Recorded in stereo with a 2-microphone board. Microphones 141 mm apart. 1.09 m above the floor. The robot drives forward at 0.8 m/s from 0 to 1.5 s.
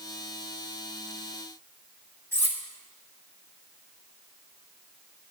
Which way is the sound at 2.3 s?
15° left (ahead or behind).